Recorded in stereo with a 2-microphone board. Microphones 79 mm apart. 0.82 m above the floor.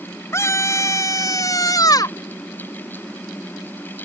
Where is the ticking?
I don't hear ticking.